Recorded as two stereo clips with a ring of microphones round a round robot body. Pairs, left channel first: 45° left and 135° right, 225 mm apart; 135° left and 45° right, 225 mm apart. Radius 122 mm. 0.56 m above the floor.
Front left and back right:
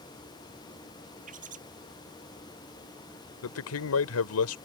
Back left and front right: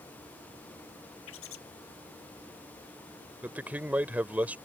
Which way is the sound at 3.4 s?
40° left.